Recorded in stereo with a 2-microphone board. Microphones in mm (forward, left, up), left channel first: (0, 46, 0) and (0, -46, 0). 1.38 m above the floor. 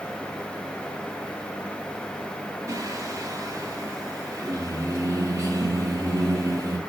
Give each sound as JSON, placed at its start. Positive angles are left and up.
{"t": 2.7, "sound": "singing", "side_deg": -35, "distance_m": 1.0}